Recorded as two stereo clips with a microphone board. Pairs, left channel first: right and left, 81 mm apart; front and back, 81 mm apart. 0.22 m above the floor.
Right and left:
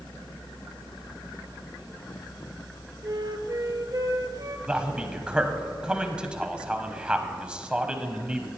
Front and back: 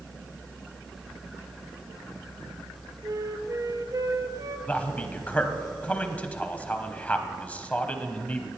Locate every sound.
3.0 s a flute: 135° left, 0.8 m
4.7 s a man speaking: 35° left, 1.0 m